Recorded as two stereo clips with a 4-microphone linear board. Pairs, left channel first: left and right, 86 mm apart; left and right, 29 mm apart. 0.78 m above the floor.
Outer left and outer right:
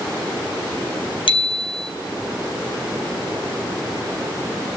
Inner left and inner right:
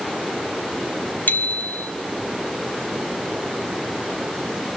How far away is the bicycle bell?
About 4.5 m.